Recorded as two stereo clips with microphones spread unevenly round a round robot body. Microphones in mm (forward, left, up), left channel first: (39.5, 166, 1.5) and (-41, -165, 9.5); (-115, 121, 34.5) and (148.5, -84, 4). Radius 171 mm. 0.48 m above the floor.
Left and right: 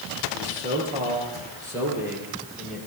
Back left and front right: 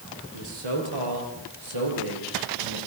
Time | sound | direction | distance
0.3 | a man speaking | 35° right | 9 m